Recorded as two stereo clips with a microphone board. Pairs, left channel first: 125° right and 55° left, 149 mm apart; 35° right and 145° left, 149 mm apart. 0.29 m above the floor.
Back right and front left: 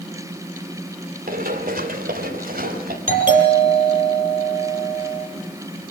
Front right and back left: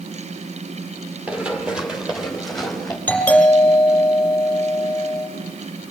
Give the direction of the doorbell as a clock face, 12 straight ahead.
10 o'clock.